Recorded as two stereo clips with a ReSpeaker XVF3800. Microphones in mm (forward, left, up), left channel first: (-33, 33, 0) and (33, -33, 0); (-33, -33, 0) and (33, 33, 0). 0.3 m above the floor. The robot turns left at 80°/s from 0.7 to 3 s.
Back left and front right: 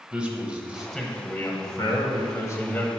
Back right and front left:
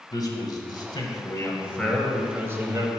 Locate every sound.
0.1 s a man speaking: 120° right, 1.2 m; by 2.9 s 65° left, 1.2 m